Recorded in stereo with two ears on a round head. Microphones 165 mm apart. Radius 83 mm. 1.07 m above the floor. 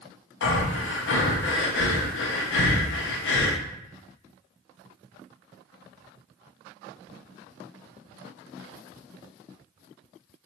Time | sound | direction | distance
0.4 | breathing | 70° left (ahead or behind) | 0.5 m